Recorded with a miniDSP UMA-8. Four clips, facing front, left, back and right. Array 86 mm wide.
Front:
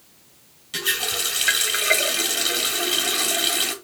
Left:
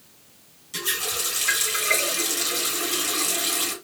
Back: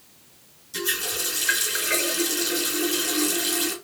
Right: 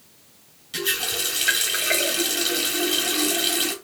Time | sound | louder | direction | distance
0.7 | a running tap | right 3 dB, front 2 dB | 20° right | 1.8 m